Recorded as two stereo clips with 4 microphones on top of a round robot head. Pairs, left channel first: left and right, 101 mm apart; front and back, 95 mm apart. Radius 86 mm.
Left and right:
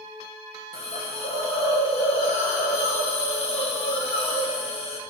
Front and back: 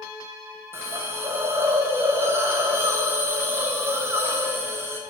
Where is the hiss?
115° left, 1.0 m.